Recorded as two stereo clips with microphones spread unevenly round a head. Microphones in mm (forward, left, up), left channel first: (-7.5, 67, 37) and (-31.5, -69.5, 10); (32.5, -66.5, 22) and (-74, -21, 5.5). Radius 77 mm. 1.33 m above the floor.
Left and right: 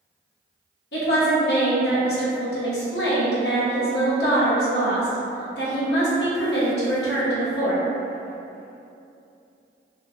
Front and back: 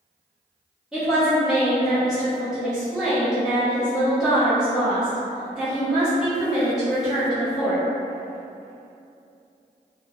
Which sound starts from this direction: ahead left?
A woman speaking, at 0.9 s.